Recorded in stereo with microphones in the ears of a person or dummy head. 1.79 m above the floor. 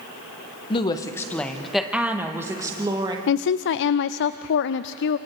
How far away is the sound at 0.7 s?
About 1.5 m.